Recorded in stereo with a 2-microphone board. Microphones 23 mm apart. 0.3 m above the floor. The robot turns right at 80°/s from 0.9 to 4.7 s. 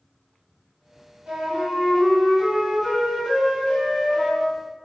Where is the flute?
110° right, 1.9 m; by 4.5 s 145° left, 1.9 m.